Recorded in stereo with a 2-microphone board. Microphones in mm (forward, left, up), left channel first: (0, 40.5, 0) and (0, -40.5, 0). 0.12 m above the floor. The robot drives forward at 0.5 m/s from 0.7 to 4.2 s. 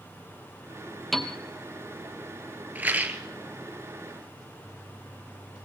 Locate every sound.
1.1 s a piano: centre (ahead or behind), 1.4 m
2.8 s a rattle: 25° right (ahead or behind), 1.4 m; by 3.2 s 20° right (ahead or behind), 1.6 m